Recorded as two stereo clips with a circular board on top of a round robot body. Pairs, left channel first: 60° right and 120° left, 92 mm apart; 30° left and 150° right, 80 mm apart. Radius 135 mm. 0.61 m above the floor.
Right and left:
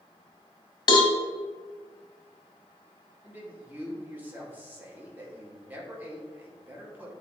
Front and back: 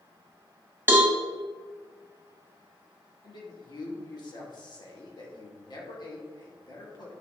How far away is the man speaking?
About 2.5 m.